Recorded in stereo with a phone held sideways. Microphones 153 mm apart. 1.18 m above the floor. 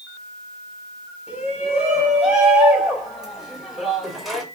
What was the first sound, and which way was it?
A shout, 5° right (ahead or behind).